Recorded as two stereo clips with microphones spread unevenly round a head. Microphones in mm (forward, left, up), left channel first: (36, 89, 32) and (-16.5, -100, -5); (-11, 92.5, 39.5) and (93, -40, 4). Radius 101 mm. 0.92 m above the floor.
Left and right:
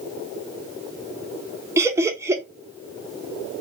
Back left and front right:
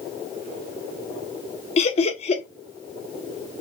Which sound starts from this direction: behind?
Laughter, at 1.8 s.